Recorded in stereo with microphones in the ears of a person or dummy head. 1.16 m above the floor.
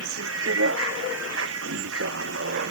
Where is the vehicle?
80° right.